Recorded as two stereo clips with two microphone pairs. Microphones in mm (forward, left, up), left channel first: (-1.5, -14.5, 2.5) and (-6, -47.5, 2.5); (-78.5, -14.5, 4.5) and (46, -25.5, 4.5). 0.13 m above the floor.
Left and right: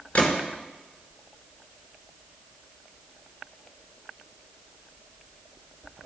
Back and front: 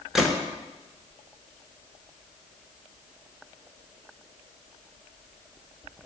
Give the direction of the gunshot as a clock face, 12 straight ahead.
9 o'clock.